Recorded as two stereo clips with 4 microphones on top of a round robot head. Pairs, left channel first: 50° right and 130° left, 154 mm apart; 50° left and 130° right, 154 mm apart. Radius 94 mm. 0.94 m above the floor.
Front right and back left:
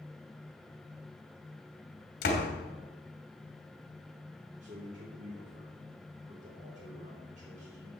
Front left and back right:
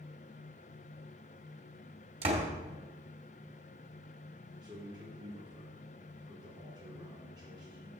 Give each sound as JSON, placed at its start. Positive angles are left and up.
{"t": 2.2, "sound": "a door slam", "azimuth_deg": -80, "distance_m": 2.0}
{"t": 4.6, "sound": "a man speaking", "azimuth_deg": 165, "distance_m": 3.5}